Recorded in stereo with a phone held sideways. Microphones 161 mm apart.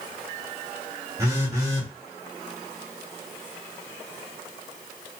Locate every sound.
1.2 s a phone buzzing: 20° right (ahead or behind), 1.3 m